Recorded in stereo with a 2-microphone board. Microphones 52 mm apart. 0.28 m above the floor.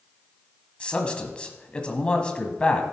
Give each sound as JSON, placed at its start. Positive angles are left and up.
{"t": 0.8, "sound": "a man speaking", "side_deg": 20, "distance_m": 1.5}